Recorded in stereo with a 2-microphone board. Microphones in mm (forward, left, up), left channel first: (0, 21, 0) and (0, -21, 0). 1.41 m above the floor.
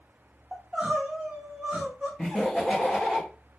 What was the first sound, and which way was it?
Crying, 15° right (ahead or behind).